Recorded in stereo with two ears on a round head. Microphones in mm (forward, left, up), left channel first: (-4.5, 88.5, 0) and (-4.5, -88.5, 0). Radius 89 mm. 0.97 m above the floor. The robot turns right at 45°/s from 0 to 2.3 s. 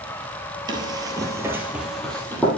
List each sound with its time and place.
0.7 s running footsteps: 25° right (ahead or behind), 1.3 m; by 2.5 s 10° left (ahead or behind), 1.9 m